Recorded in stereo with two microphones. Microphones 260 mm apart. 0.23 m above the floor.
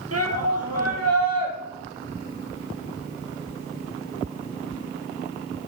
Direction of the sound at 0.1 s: 70° right (ahead or behind).